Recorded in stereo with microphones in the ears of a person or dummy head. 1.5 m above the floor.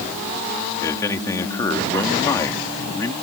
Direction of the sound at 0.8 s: 15° left (ahead or behind).